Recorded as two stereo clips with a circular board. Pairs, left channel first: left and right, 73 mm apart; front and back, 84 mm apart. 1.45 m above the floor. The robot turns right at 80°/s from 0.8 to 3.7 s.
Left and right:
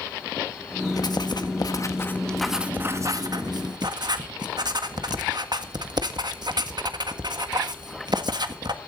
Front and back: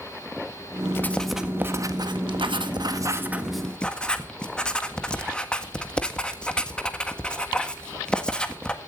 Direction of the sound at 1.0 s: 60° left.